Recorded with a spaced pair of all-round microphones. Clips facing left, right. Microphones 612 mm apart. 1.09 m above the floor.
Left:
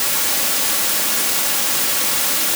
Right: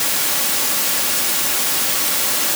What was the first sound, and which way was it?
Only background noise.